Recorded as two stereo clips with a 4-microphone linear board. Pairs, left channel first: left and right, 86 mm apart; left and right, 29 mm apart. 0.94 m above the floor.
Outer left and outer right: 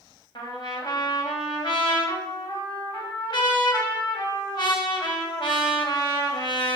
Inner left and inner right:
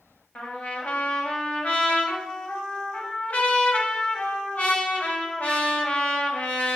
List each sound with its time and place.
0.3 s a trumpet: 65° left (ahead or behind), 2.5 m